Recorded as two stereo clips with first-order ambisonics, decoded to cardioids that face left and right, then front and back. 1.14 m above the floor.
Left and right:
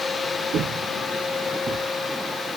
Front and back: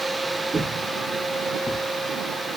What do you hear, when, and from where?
0.5 s footsteps: 115° right, 1.4 m; by 1.9 s 55° right, 1.2 m